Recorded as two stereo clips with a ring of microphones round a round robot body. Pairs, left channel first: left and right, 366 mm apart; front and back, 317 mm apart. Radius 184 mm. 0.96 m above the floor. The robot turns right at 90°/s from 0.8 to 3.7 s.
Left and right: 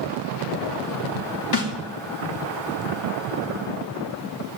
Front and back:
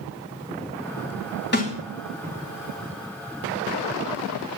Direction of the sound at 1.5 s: 55° left.